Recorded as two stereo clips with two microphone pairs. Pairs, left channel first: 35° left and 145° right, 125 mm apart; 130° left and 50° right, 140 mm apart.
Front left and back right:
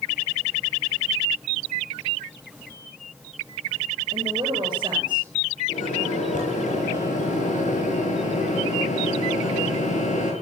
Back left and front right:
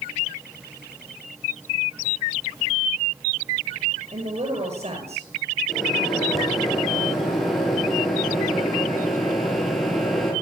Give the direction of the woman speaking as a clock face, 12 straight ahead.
3 o'clock.